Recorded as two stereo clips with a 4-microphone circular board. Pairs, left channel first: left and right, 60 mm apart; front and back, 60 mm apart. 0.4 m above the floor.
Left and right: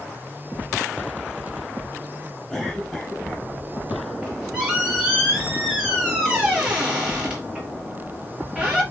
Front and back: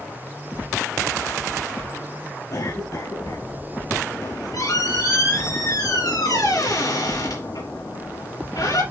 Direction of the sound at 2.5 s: Straight ahead.